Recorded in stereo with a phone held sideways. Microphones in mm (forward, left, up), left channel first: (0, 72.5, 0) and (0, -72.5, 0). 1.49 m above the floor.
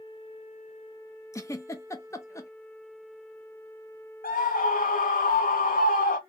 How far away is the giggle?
About 0.7 m.